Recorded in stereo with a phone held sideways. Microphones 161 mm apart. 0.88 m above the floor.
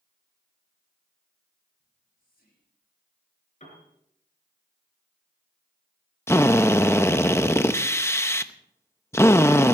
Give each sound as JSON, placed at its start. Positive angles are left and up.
{"t": 1.8, "sound": "whispering", "side_deg": 65, "distance_m": 8.5}
{"t": 3.6, "sound": "a piano", "side_deg": 45, "distance_m": 5.0}
{"t": 6.3, "sound": "a drill", "side_deg": 15, "distance_m": 0.8}